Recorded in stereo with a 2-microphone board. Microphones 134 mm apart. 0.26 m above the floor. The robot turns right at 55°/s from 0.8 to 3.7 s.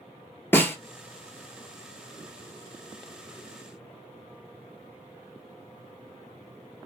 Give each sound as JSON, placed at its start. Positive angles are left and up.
{"t": 0.5, "sound": "a snare drum", "side_deg": 15, "distance_m": 0.7}